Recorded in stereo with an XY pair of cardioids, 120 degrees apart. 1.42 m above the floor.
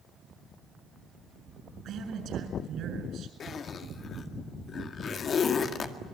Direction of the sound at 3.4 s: 45° left.